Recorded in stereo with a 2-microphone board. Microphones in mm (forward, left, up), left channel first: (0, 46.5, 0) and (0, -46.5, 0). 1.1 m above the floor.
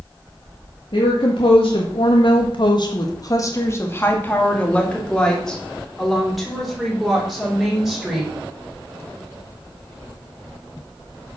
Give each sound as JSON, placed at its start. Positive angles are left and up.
{"t": 0.9, "sound": "a woman speaking", "side_deg": 65, "distance_m": 2.0}